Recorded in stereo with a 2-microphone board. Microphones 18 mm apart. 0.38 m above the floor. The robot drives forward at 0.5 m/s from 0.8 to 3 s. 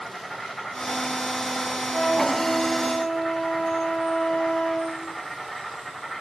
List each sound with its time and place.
0.0 s an insect: 35° left (ahead or behind), 6.5 m; by 6.2 s 30° left (ahead or behind), 7.5 m
1.9 s a flute: 70° left (ahead or behind), 3 m; by 5.0 s 65° left (ahead or behind), 3 m